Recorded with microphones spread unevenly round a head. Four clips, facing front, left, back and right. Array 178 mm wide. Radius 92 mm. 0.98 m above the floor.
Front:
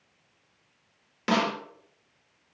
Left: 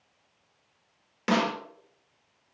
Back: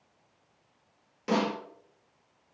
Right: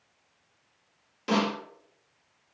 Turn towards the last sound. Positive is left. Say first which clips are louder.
# left 1 dB, front 2 dB
turn(degrees=30)